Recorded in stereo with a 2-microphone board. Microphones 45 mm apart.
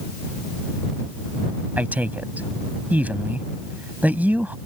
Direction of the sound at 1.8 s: 35° right (ahead or behind).